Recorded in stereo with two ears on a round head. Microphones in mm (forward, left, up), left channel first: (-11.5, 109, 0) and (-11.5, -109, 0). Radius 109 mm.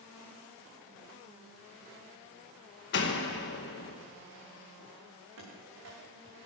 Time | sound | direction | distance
2.9 | a door slam | 50° left (ahead or behind) | 1.2 m
5.4 | running footsteps | 60° right (ahead or behind) | 6.5 m